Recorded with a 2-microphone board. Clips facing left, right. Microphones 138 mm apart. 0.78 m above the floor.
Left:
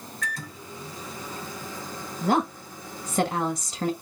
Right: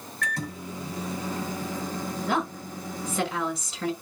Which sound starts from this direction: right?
A microwave, at 0.2 s.